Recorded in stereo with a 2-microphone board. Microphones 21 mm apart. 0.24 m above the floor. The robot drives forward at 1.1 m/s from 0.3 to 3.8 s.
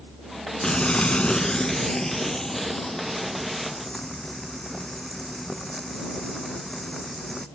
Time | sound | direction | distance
0.6 | frying | 45° left (ahead or behind) | ?